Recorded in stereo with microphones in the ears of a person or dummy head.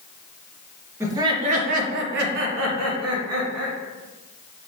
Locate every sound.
1.0 s laughter: 15° right (ahead or behind), 0.7 m; by 3.8 s 80° right, 1.5 m